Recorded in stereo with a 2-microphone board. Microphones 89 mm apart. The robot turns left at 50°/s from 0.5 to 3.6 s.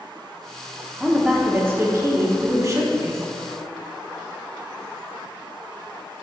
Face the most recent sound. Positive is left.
turn(degrees=-140)